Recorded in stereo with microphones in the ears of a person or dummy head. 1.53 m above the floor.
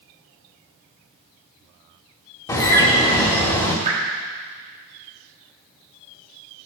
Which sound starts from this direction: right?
Dripping, at 3.9 s.